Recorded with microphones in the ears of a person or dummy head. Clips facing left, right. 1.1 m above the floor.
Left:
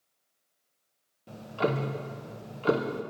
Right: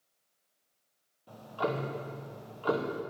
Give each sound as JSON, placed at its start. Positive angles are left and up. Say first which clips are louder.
{"t": 1.3, "sound": "ticking", "louder": "left 4 dB", "side_deg": 25, "distance_m": 0.6}